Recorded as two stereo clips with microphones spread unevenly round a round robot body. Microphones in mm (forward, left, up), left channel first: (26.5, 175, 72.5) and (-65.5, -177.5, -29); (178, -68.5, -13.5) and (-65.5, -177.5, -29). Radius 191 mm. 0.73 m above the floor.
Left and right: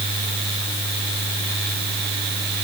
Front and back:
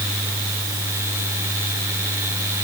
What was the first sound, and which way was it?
Only background noise.